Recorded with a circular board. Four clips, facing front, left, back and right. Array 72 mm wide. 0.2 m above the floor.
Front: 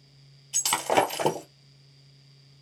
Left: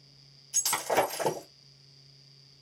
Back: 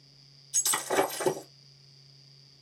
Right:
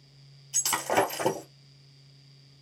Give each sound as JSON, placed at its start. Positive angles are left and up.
{"t": 0.5, "sound": "breaking glass", "azimuth_deg": -10, "distance_m": 2.0}